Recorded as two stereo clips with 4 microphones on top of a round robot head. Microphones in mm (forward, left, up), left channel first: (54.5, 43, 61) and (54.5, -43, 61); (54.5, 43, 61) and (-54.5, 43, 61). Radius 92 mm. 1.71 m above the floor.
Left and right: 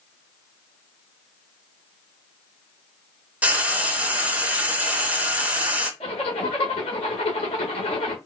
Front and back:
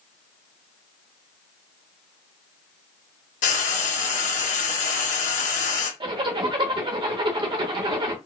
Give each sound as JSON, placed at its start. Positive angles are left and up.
{"t": 3.4, "sound": "frying", "azimuth_deg": -20, "distance_m": 0.9}
{"t": 6.0, "sound": "a zipper", "azimuth_deg": 135, "distance_m": 0.8}